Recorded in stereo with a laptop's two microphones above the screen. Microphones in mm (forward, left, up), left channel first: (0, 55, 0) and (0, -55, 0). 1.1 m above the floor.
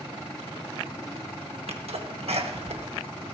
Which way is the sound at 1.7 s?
70° right (ahead or behind).